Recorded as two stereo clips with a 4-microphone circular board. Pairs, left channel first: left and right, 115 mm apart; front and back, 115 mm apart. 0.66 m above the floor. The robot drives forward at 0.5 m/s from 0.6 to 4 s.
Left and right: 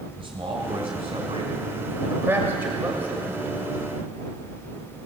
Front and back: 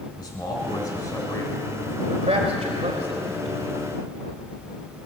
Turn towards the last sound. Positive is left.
turn(degrees=-165)